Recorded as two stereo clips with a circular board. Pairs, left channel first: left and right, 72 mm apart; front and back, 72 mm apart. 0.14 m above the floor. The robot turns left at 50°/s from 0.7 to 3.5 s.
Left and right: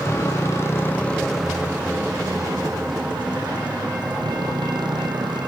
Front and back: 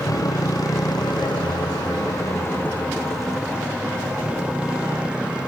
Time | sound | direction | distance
0.0 | a motorcycle | 35° left | ?